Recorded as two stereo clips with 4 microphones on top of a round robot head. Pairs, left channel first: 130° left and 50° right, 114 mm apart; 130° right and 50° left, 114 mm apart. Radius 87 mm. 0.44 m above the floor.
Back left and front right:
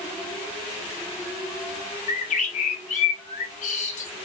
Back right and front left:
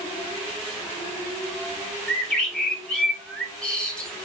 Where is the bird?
145° left, 0.7 m.